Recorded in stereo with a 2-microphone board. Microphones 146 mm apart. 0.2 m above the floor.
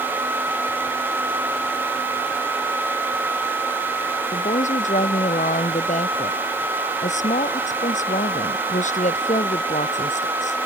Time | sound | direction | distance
4.3 | a woman speaking | 55° left (ahead or behind) | ?